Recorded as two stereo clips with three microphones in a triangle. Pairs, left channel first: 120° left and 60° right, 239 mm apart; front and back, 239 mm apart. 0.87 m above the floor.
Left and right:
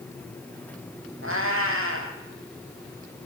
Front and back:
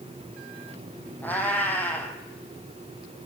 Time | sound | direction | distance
1.2 | a cat meowing | 80° right | 3 m